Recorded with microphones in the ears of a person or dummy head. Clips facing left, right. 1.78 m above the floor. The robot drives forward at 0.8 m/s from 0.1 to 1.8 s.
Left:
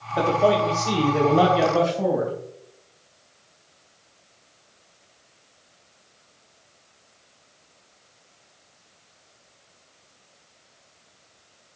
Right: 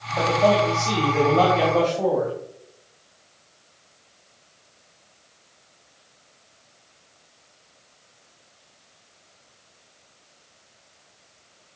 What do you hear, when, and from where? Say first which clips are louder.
0.2 s a man speaking: right 1 dB; 25° left (ahead or behind), 1.4 m; by 2.3 s 15° left (ahead or behind), 2.5 m